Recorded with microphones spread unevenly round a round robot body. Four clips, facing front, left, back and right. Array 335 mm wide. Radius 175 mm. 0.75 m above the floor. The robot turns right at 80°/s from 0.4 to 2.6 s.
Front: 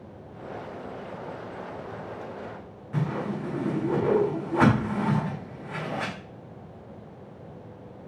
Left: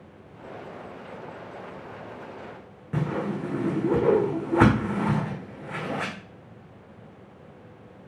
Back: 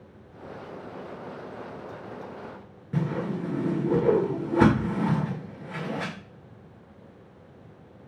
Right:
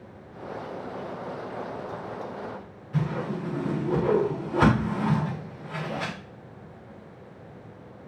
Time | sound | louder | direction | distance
2.9 | a whoosh | left 1 dB, back 1 dB | 135° left | 1.8 m